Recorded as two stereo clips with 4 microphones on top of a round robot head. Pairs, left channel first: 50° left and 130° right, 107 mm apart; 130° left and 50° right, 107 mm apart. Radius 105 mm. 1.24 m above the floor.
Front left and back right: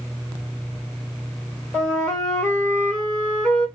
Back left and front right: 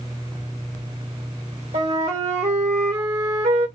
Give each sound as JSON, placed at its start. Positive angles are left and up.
{"t": 1.7, "sound": "a flute", "azimuth_deg": -25, "distance_m": 1.4}